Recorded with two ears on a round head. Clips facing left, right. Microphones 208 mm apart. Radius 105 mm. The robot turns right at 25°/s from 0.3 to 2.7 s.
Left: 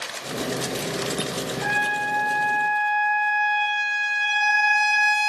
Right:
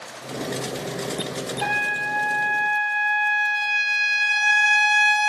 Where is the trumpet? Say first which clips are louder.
Left 1 dB; 65° right (ahead or behind), 1.2 m; by 5.3 s 55° right (ahead or behind), 1.2 m.